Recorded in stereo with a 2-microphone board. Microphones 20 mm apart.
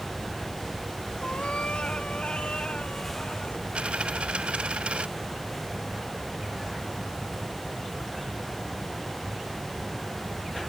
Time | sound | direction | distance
1.2 | a cat meowing | 70° left (ahead or behind) | ?
3.8 | a dropped coin | 75° right (ahead or behind) | ?